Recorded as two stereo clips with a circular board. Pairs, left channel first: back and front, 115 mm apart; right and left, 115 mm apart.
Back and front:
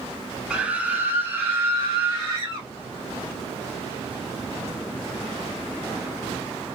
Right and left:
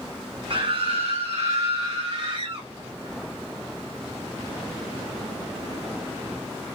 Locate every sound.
0.5 s a scream: 80° left, 1.1 m; by 2.7 s 65° left, 3 m